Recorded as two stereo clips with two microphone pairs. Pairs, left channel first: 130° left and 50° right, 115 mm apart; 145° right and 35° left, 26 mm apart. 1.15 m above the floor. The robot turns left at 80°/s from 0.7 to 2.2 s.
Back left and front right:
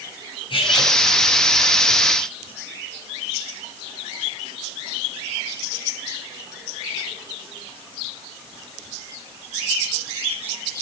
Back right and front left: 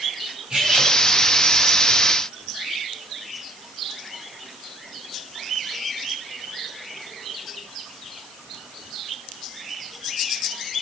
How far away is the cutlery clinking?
About 4.5 m.